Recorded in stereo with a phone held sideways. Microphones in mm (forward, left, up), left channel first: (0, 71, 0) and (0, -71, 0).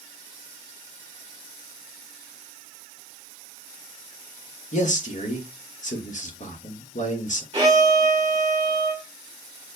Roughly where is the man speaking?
Left.